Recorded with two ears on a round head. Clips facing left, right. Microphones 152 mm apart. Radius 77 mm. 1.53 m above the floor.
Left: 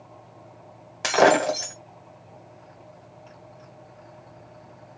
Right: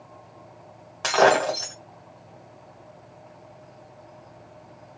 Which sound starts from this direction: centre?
Breaking glass, at 1.0 s.